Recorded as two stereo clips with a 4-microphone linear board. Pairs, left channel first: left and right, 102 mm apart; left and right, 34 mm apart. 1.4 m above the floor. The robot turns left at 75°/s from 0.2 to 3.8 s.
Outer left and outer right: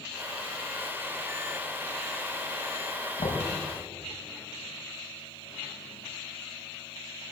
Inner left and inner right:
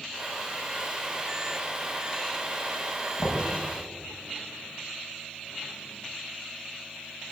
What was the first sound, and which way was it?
Knocking, 85° left.